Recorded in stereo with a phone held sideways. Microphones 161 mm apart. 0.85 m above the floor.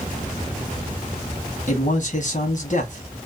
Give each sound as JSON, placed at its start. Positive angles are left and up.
{"t": 1.7, "sound": "a man speaking", "side_deg": 55, "distance_m": 1.1}